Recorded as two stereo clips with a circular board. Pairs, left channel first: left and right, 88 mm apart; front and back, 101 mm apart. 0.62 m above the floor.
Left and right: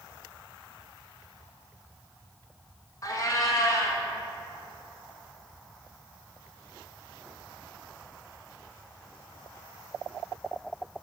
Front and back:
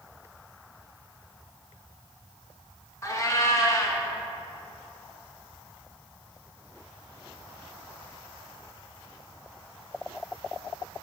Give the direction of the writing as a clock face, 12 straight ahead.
No writing in this recording.